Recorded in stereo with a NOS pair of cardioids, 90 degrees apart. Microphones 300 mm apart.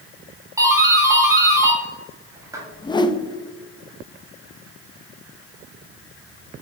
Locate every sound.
0.6 s a doorbell: 10° right, 2 m
2.7 s a whoosh: 15° left, 0.5 m